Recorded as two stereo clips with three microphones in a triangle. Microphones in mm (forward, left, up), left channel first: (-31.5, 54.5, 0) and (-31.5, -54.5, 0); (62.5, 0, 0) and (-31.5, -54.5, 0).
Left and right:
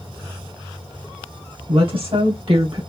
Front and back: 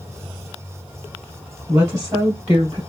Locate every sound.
1.7 s a woman speaking: 95° right, 2 m; by 2.8 s 115° right, 2.0 m